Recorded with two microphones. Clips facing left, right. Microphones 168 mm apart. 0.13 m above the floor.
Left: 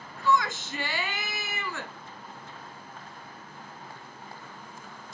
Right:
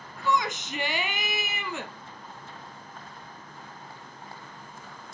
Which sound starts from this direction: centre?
A shout, at 0.2 s.